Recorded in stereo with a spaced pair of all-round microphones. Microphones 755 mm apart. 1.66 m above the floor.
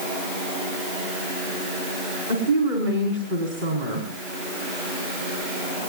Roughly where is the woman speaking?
Right.